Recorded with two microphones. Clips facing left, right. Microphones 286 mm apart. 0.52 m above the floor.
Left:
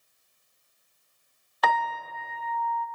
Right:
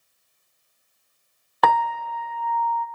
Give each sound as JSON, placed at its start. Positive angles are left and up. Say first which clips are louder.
{"t": 1.6, "sound": "a piano", "louder": "right 6 dB", "side_deg": -65, "distance_m": 0.8}